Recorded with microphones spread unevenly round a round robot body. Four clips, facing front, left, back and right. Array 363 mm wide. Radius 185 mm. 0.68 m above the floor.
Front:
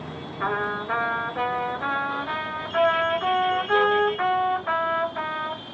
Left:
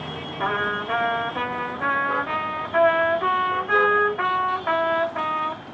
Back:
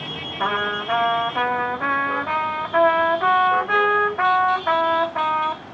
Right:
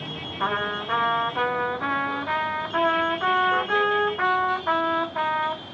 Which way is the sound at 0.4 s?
155° left.